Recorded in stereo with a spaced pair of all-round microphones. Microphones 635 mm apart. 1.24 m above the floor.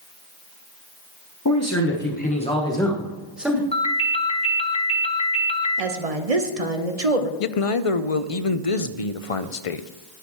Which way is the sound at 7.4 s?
60° left (ahead or behind).